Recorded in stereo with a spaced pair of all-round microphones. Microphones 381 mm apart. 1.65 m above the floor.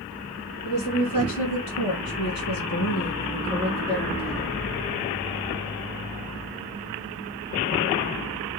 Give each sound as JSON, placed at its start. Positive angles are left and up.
{"t": 0.7, "sound": "a woman speaking", "side_deg": 55, "distance_m": 2.5}